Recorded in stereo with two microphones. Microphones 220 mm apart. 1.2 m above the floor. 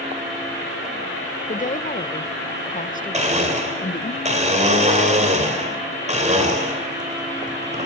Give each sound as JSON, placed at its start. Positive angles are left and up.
{"t": 1.5, "sound": "a woman speaking", "side_deg": 35, "distance_m": 0.5}
{"t": 3.1, "sound": "a blender", "side_deg": -30, "distance_m": 2.5}